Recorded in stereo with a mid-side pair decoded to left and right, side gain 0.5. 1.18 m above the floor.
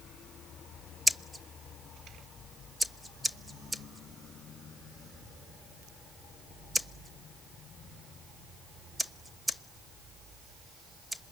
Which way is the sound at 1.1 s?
5° right.